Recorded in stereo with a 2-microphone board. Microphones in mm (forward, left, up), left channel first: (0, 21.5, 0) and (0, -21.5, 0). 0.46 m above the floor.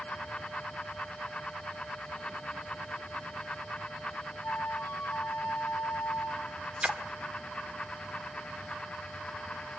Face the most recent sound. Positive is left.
turn(degrees=-25)  # may be behind; listen again after turning